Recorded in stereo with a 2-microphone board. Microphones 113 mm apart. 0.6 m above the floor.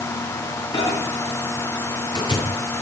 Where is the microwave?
45° left (ahead or behind), 8.5 m.